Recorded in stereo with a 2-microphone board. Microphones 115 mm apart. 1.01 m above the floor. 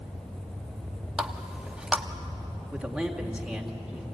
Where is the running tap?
10° right (ahead or behind), 1.0 m.